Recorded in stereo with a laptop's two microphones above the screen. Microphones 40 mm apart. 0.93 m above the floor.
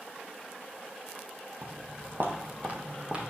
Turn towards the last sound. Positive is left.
turn(degrees=-25)  # may be behind; listen again after turning